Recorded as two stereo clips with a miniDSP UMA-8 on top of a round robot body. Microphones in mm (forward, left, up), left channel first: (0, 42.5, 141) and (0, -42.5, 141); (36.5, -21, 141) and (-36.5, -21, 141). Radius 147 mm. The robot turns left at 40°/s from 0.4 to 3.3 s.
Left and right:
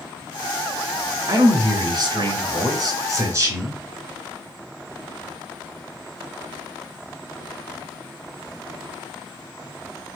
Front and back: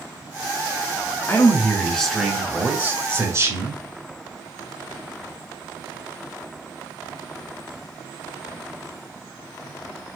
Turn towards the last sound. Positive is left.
turn(degrees=-140)